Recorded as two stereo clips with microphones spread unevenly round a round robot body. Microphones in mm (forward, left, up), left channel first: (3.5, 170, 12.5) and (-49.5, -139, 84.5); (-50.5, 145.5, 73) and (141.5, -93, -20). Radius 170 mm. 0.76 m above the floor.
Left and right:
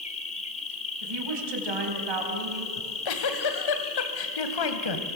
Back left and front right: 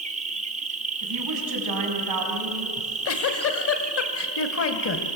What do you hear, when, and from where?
0.0 s an insect: 15° left, 1.6 m
1.0 s a woman speaking: 80° right, 4.5 m
2.8 s a giggle: 85° left, 2.0 m